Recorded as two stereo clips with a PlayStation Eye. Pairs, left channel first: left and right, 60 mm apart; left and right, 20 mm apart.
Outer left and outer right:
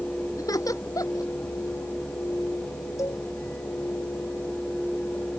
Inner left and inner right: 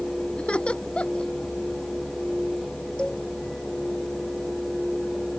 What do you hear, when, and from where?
0.4 s laughter: 75° left (ahead or behind)
3.0 s a cowbell: 60° left (ahead or behind)